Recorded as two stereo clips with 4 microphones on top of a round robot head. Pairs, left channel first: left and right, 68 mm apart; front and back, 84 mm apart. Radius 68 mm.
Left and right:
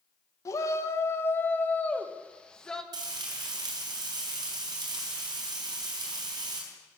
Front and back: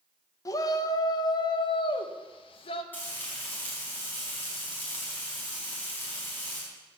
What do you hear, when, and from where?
0.5 s a shout: 50° left, 1.6 m; by 2.8 s 10° left, 2 m
2.9 s frying: 75° right, 4.5 m